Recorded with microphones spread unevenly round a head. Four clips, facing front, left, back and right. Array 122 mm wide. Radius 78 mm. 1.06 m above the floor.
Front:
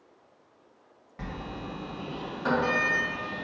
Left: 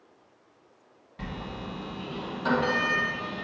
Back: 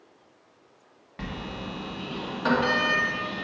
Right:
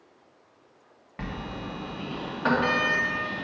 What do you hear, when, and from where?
1.2 s a sliding door: 125° right, 1.3 m